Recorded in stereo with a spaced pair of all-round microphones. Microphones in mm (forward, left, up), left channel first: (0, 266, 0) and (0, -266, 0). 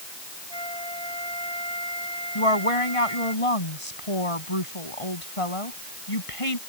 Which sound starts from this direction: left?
A woman speaking, at 2.4 s.